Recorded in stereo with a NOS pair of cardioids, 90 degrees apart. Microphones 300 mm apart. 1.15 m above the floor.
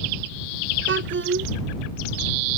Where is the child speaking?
40° right.